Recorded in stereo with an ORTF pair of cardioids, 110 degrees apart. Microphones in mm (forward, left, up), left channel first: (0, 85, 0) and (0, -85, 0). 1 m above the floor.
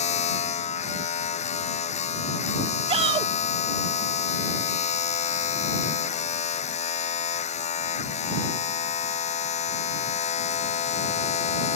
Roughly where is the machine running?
Ahead left.